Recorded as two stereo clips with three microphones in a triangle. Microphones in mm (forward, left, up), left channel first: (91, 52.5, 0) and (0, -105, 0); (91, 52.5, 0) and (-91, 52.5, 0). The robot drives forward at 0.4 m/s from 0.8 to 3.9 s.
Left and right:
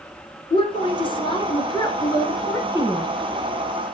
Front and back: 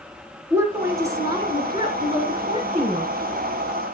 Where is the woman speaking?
110° left, 2 m; by 3.1 s 135° left, 2.5 m.